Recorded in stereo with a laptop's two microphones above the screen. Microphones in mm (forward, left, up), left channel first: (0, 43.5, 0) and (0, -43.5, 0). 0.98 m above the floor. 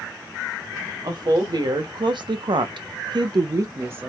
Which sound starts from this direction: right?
A woman speaking, at 1.0 s.